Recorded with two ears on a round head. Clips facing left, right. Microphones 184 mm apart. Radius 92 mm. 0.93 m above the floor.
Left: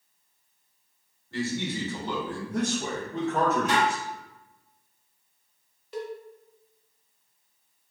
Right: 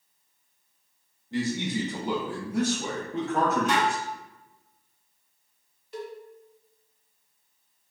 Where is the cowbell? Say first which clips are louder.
Left 2 dB; 65° left (ahead or behind), 0.6 m.